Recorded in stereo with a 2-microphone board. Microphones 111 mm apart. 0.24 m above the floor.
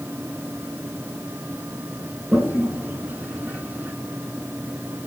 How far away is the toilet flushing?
About 1.7 m.